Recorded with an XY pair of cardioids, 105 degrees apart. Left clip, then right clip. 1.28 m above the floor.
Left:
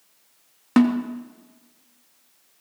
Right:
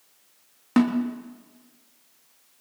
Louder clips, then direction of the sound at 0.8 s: Left 3 dB; 25° left.